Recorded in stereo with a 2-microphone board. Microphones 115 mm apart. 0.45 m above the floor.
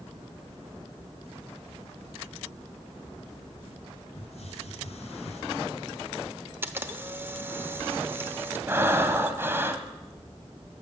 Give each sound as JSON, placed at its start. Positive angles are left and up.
{"t": 4.2, "sound": "a hiss", "side_deg": 75, "distance_m": 1.9}
{"t": 6.6, "sound": "a camera shutter", "side_deg": -20, "distance_m": 0.8}
{"t": 8.7, "sound": "breathing", "side_deg": -20, "distance_m": 1.1}